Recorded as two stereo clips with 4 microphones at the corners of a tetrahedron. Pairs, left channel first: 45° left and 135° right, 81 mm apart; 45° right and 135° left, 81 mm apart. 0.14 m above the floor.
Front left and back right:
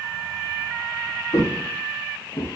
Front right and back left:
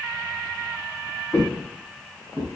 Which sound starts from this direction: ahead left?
Footsteps, at 1.3 s.